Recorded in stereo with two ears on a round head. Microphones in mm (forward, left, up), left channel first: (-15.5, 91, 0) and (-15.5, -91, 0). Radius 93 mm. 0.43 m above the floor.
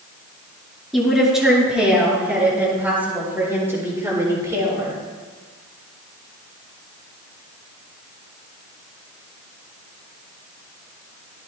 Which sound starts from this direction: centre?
A woman speaking, at 0.9 s.